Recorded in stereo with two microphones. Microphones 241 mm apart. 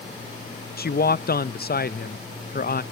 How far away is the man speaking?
About 0.5 m.